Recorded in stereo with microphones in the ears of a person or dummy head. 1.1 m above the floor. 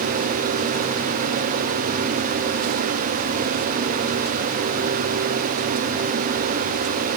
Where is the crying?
No crying in this recording.